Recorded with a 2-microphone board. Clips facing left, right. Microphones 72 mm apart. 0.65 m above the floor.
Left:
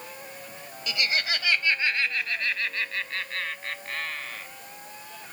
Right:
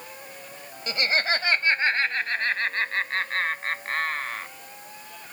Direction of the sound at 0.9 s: 35° right (ahead or behind).